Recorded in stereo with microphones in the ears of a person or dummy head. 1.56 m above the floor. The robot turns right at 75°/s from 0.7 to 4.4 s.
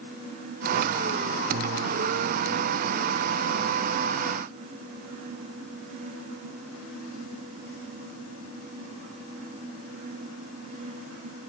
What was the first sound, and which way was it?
Only background noise.